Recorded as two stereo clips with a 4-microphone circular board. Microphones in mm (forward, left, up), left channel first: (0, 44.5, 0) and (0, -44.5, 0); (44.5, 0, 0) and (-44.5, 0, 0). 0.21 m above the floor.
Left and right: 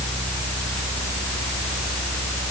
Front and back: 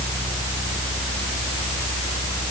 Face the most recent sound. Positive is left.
No sound to turn to.